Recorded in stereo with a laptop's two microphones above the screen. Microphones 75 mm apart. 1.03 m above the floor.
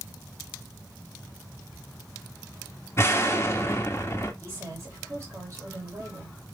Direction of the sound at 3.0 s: 35° left (ahead or behind).